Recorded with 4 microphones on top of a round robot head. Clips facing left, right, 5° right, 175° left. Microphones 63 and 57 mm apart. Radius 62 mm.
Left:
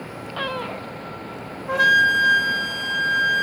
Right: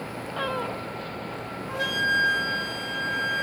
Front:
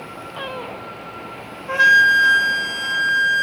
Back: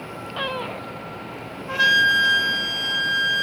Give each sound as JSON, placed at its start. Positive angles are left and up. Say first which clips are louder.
{"t": 1.7, "sound": "a flute", "louder": "left 9 dB, front 5 dB", "azimuth_deg": 60, "distance_m": 1.4}